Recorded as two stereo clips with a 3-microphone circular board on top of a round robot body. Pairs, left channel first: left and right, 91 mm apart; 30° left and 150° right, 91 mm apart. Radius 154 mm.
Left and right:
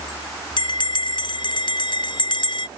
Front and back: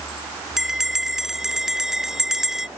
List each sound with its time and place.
0.6 s a bell: 125° left